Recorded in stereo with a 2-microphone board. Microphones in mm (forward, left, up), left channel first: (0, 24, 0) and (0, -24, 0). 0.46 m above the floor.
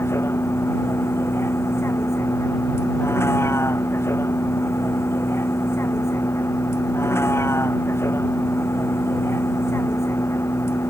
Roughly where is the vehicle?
Left.